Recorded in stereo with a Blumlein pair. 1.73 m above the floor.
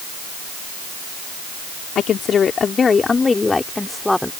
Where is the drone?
I don't hear a drone.